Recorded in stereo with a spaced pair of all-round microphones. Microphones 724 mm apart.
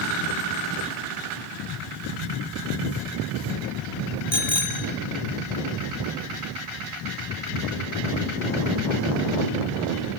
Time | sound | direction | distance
4.3 | a bicycle bell | 35° left (ahead or behind) | 3 m